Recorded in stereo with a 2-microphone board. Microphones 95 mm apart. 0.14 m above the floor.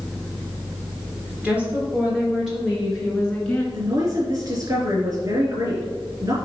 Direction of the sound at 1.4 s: 15° right (ahead or behind).